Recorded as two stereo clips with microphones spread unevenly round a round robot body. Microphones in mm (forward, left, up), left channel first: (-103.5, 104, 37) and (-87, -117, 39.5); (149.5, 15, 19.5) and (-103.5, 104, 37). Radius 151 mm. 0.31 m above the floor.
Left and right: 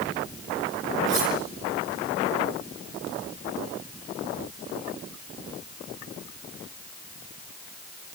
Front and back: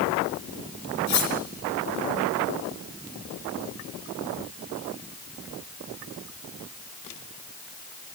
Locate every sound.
1.1 s cutlery clinking: 40° right, 3.5 m